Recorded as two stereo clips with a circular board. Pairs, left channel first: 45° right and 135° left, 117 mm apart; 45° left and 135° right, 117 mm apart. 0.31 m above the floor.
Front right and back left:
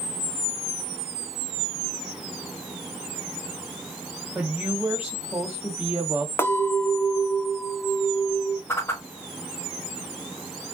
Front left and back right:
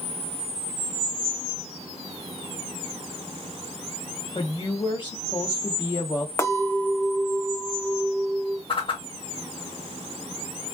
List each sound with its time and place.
4.3 s a woman speaking: 60° left, 1.7 m
6.4 s a clink: 5° left, 0.7 m
8.7 s a whoosh: 20° left, 0.9 m